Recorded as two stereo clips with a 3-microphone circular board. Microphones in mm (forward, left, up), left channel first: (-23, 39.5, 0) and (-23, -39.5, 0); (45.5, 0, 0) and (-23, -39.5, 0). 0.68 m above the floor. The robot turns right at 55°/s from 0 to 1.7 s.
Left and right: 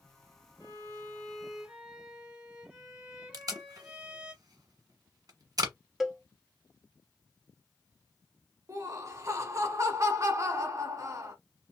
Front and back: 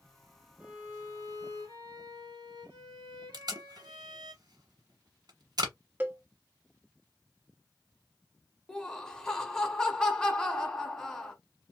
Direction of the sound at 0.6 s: 135° left.